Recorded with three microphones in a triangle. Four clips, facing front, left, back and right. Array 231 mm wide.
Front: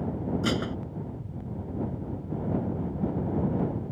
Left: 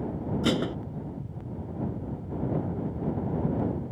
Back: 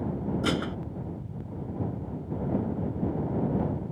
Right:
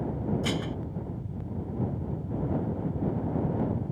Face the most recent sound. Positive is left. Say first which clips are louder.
# left 5 dB, even
turn(degrees=90)